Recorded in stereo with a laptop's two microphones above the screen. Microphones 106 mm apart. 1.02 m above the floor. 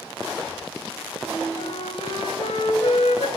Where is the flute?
80° left, 3 m.